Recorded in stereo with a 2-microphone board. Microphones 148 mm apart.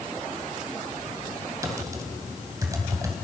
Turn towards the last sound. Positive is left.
turn(degrees=-20)  # may be behind; listen again after turning